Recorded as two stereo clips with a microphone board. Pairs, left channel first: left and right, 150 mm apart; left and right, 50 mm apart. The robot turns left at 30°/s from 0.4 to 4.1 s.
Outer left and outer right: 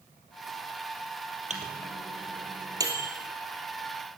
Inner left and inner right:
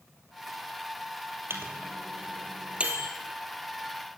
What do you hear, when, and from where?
1.5 s a microwave: 55° right (ahead or behind), 2.0 m; by 3.1 s 15° right (ahead or behind), 2.0 m